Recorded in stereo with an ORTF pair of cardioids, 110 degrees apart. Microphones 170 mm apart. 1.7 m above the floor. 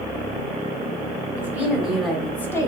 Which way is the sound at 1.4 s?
10° right.